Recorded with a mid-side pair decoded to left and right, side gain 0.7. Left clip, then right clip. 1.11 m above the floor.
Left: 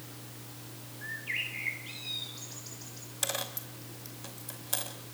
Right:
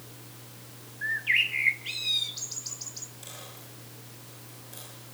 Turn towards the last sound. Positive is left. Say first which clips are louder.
# left 9 dB
turn(degrees=60)